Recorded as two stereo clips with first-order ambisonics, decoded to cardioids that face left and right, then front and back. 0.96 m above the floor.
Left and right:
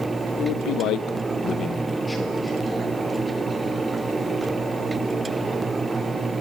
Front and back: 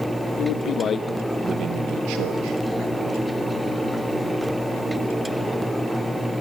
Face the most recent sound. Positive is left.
turn(degrees=-175)